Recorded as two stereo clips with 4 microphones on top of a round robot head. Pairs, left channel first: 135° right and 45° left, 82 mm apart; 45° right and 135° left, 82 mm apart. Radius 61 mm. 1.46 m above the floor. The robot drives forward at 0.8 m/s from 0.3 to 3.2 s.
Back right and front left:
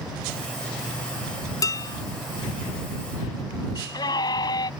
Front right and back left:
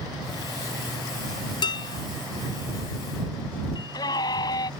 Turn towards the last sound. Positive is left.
turn(degrees=-90)